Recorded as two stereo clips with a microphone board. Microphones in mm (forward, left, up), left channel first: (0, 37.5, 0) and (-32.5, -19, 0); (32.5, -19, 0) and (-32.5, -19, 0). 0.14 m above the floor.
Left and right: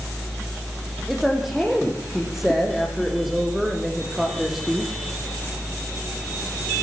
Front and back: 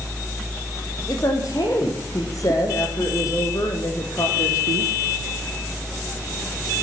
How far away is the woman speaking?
About 7 m.